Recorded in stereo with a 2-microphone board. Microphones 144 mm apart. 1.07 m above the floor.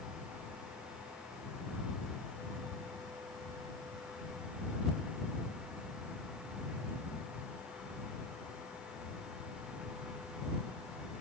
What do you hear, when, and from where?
Only background noise.